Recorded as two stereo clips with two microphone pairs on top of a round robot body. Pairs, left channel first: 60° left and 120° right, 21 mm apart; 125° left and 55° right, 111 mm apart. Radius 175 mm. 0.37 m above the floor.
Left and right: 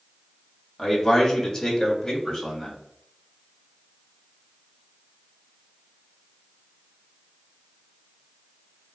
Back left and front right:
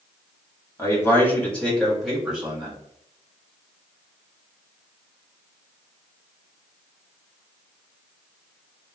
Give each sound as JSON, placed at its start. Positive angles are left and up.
{"t": 0.8, "sound": "a man speaking", "azimuth_deg": 105, "distance_m": 1.5}